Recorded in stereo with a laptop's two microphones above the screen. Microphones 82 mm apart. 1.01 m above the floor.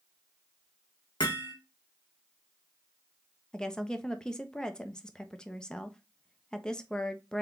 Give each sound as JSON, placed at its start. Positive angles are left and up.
{"t": 1.2, "sound": "hammering", "side_deg": 70, "distance_m": 1.0}
{"t": 3.5, "sound": "a woman speaking", "side_deg": 10, "distance_m": 0.7}